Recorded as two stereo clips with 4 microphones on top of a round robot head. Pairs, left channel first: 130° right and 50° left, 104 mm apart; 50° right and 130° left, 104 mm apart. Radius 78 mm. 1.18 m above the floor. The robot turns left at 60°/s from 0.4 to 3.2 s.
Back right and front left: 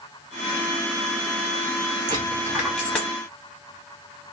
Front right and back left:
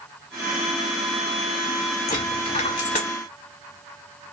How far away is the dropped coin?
About 0.7 m.